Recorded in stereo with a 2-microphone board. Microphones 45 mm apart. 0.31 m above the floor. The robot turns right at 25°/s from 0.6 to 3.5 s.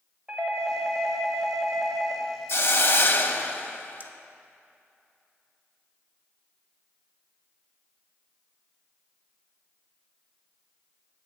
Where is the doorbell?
15° right (ahead or behind), 1.5 m; by 2.2 s 25° right (ahead or behind), 1.5 m.